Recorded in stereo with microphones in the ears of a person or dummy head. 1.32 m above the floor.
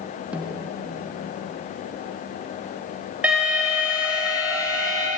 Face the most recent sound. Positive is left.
turn(degrees=-5)  # may be behind; listen again after turning